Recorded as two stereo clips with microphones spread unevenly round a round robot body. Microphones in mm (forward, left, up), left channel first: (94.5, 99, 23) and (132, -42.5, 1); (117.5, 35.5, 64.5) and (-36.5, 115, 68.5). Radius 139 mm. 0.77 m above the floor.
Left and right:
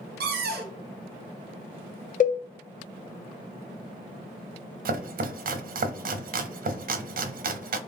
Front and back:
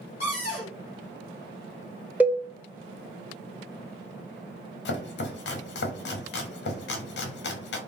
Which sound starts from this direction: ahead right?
Chopping, at 4.8 s.